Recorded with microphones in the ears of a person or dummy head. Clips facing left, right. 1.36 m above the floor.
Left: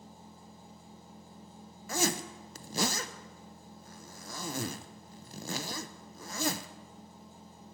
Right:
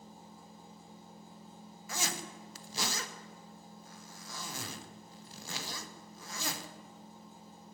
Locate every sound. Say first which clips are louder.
0.0 s a machine running: left 1 dB; 80° left, 4.5 m
1.9 s a zipper: left 8 dB; 50° left (ahead or behind), 0.7 m